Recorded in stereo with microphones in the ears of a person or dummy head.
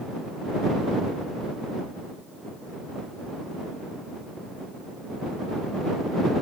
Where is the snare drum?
I don't hear a snare drum.